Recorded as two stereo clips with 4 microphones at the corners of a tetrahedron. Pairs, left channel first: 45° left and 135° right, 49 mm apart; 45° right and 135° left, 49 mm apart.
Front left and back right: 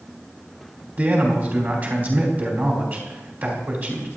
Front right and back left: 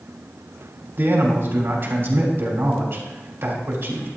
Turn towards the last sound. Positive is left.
turn(degrees=180)